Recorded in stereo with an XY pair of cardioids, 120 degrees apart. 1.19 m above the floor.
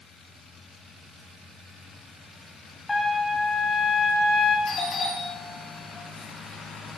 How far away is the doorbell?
About 2.5 m.